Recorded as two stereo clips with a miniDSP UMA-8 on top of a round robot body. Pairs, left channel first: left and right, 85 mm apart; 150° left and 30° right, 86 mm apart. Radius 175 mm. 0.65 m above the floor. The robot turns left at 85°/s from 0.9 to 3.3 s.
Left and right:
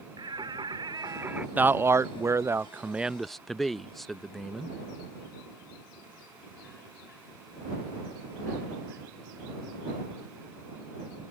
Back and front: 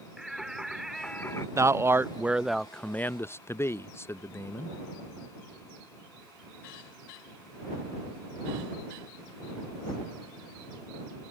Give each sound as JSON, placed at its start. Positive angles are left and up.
{"t": 0.2, "sound": "singing", "azimuth_deg": -115}
{"t": 1.6, "sound": "a man speaking", "azimuth_deg": -35}